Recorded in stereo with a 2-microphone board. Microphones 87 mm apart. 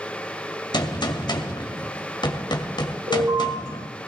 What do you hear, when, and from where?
0.7 s a gunshot: 65° left (ahead or behind), 1.5 m
3.1 s an alarm: 85° right, 8 m